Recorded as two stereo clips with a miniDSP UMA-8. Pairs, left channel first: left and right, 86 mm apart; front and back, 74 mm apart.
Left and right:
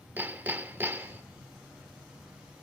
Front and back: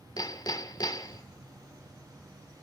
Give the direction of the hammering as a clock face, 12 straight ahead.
1 o'clock.